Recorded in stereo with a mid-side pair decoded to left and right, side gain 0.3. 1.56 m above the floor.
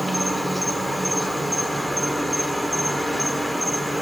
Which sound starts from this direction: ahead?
An insect, at 0.0 s.